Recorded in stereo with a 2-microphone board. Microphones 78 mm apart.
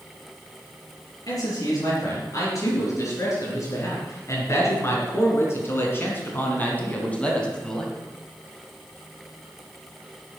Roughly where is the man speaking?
Left.